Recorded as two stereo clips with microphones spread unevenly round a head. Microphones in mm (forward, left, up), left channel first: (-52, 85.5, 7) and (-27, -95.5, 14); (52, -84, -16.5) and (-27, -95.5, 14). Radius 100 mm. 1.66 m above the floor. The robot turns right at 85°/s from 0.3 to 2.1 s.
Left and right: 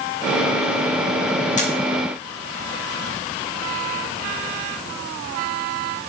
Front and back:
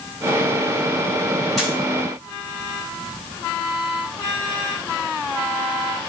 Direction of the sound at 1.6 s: 125° left.